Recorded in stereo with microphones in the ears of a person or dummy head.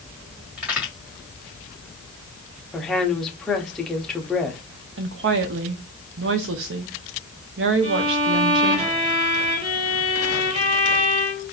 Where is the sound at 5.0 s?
65° right (ahead or behind), 0.7 m.